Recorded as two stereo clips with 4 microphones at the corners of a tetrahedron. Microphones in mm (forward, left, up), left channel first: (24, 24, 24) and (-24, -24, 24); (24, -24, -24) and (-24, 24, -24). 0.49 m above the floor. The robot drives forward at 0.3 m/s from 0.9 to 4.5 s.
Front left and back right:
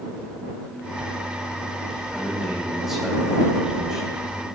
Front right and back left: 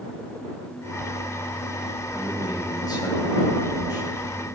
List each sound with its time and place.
2.1 s a man speaking: 45° right, 3 m; by 4.2 s 55° right, 2.5 m